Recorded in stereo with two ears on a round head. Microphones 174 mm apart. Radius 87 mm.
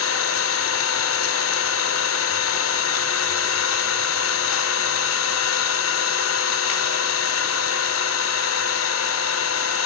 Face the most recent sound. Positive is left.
turn(degrees=80)